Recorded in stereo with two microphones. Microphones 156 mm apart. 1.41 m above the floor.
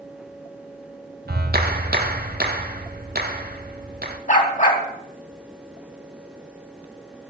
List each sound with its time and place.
1.3 s a clap: 75° right (ahead or behind), 1.7 m
4.3 s a dog barking: 55° left (ahead or behind), 3.5 m